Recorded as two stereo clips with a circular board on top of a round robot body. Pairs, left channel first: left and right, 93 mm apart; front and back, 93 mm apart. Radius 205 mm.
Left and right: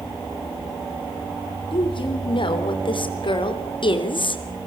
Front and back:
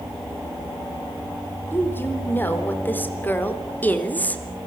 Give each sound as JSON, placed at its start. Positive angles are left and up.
{"t": 1.7, "sound": "a woman speaking", "azimuth_deg": 65, "distance_m": 4.0}